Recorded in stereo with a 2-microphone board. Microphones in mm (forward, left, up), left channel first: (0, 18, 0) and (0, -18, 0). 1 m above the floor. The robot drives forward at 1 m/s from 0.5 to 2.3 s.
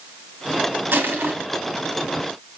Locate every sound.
0.9 s crushing: 85° right, 3.5 m; by 1.3 s 80° right, 3.5 m